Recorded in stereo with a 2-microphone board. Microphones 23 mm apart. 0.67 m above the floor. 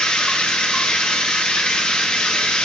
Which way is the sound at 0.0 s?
60° left (ahead or behind).